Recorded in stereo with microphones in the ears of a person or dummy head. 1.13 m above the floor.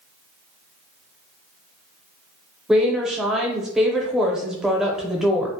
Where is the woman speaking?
5° right (ahead or behind), 0.5 m.